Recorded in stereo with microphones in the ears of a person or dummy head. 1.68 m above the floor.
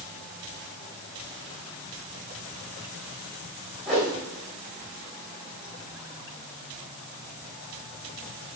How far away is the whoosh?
About 3.5 m.